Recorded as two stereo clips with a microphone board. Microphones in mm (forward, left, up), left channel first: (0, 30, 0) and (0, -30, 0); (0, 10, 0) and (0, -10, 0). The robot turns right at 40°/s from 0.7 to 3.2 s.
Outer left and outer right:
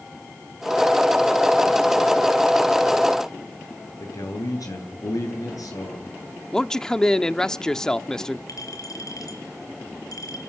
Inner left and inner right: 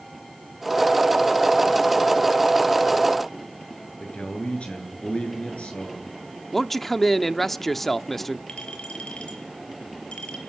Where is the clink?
75° left (ahead or behind), 6 m.